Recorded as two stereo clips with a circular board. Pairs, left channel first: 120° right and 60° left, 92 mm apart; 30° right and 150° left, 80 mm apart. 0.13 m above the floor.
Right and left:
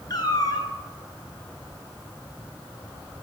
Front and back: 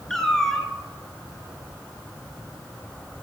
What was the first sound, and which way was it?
A cat meowing, 110° right.